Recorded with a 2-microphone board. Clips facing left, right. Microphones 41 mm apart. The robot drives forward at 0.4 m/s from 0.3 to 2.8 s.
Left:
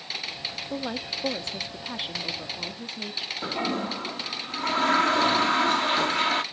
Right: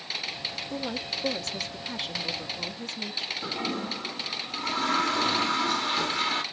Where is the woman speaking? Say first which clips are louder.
Left 2 dB; 25° left (ahead or behind), 1.2 m; by 3.3 s 15° left (ahead or behind), 1.9 m.